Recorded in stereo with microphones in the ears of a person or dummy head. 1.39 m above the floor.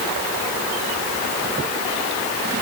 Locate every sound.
Only background noise.